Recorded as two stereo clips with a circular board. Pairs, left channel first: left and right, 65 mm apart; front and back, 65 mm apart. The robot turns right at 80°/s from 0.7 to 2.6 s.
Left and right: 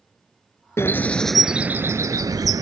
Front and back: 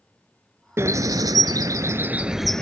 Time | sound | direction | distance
0.8 | a bird | 135° left | ?